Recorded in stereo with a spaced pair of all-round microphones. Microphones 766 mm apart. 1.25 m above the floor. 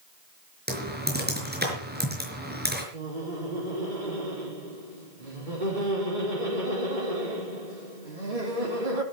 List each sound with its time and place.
0.7 s typing on a keyboard: 10° right (ahead or behind), 5 m
2.9 s laughter: 85° right, 3.5 m